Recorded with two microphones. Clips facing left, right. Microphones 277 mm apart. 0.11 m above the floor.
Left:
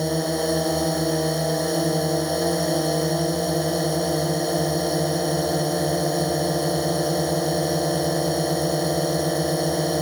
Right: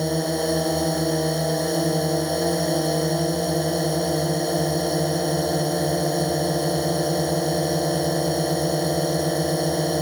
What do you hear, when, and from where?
0.0 s a drone: centre (ahead or behind)